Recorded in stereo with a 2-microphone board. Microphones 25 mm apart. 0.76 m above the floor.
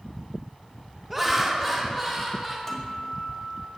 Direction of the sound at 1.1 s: 10° right (ahead or behind).